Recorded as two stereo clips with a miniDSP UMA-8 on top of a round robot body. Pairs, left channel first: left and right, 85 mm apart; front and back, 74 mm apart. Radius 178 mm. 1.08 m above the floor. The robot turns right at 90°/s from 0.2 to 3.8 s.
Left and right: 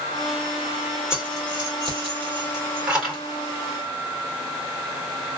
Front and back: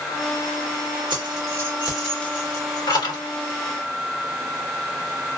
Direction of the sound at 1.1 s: 175° right.